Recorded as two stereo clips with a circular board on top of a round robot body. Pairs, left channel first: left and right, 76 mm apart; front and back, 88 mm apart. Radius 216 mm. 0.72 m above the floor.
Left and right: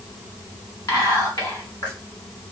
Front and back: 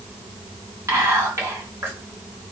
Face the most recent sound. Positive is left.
turn(degrees=125)